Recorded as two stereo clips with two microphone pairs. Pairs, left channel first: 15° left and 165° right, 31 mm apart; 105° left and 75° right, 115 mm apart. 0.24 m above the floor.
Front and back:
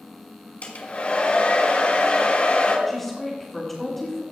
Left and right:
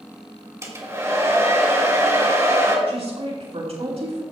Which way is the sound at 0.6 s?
15° right.